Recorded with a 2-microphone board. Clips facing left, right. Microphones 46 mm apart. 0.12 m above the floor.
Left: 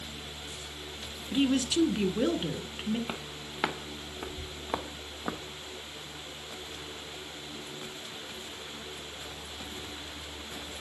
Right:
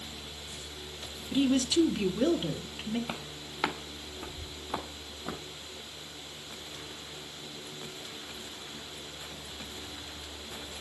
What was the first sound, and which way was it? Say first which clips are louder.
A woman speaking: right 1 dB; 15° left (ahead or behind).